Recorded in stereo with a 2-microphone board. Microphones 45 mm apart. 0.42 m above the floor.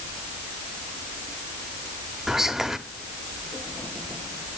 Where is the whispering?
10° right (ahead or behind), 1.1 m.